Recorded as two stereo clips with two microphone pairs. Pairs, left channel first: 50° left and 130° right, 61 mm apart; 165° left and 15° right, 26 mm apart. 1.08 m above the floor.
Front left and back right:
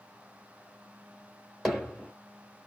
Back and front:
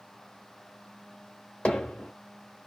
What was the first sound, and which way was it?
Hammering, 135° left.